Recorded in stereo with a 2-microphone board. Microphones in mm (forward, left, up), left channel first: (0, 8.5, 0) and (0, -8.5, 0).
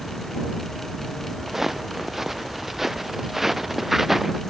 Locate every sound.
1.5 s footsteps: 15° right (ahead or behind); by 4.4 s 10° right (ahead or behind)